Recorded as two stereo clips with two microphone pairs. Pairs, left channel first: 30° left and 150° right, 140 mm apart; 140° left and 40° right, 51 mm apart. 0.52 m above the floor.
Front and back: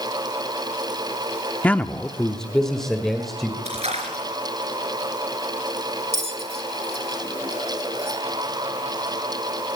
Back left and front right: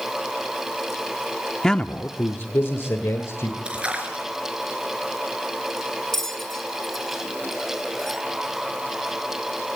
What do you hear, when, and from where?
1.6 s a man speaking: 75° left, 0.7 m; by 3.5 s 120° left, 2 m
3.6 s a splash: 110° right, 4 m
6.1 s a bell: 140° right, 1.7 m